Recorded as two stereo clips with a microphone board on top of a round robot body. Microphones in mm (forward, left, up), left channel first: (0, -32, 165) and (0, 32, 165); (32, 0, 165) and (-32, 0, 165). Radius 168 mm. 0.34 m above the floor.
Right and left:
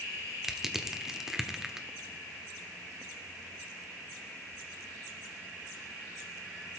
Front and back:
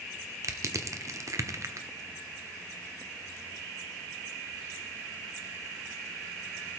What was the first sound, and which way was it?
Crushing, 175° left.